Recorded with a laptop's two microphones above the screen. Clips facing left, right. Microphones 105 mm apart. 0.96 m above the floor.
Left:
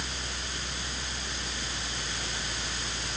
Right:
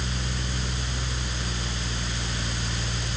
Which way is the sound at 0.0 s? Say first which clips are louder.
Right 6 dB; 80° right.